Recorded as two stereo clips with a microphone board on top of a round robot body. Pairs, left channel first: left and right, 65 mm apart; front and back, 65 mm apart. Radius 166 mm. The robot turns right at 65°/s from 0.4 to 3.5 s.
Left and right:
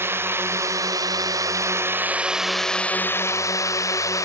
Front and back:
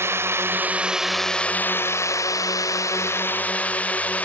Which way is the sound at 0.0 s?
140° right.